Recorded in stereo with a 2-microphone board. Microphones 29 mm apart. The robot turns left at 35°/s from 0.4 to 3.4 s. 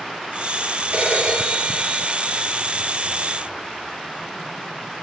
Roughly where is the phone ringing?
Right.